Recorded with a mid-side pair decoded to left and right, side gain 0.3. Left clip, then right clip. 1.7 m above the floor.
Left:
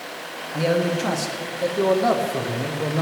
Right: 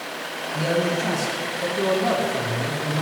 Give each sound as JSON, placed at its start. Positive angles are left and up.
{"t": 0.5, "sound": "a man speaking", "azimuth_deg": 30, "distance_m": 2.5}